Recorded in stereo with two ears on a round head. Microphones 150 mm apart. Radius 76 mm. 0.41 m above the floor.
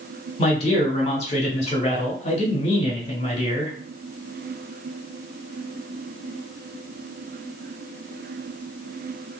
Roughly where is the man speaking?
Left.